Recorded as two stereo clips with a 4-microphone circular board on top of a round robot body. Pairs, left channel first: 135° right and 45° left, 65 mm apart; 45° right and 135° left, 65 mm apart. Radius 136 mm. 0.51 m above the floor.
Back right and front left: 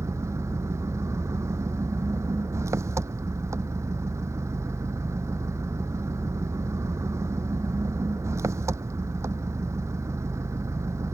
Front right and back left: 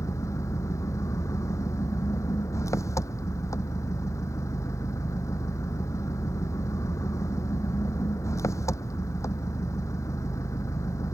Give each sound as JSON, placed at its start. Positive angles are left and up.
{"t": 0.0, "sound": "an engine running", "azimuth_deg": 0}